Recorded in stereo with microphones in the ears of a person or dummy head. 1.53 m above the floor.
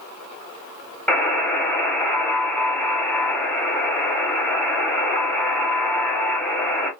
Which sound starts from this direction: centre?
A buzzer, at 1.1 s.